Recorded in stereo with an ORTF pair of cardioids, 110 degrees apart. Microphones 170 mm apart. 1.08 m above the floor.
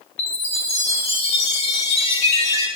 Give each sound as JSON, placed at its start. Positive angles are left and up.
{"t": 0.2, "sound": "a chime", "azimuth_deg": 35, "distance_m": 6.5}